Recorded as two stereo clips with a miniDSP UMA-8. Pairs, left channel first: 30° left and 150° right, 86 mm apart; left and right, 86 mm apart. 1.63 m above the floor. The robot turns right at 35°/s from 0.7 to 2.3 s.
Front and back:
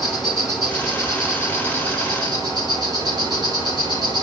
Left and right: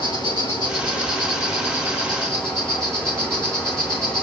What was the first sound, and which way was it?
An insect, 115° left.